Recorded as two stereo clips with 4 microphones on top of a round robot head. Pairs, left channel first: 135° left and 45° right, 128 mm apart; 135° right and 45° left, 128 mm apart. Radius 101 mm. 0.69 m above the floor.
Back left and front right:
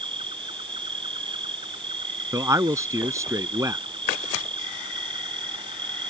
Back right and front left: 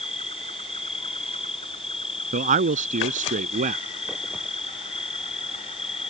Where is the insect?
95° right.